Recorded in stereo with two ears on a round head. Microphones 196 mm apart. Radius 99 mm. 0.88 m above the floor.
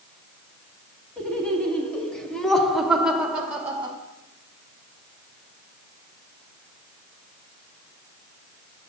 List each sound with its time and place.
1.2 s laughter: 5° left (ahead or behind), 2 m; by 4.0 s 10° right (ahead or behind), 1.3 m